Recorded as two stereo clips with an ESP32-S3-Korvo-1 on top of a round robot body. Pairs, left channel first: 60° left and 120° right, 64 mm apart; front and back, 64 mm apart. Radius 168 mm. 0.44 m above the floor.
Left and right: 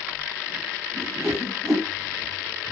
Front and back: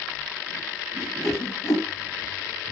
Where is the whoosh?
25° right, 1.9 m.